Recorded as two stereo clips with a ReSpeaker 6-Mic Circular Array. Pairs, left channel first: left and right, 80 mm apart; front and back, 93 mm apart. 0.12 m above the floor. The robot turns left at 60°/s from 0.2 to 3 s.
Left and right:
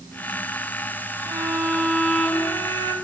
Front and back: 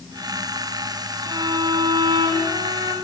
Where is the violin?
125° right, 2.5 m; by 3.0 s 135° left, 2.5 m.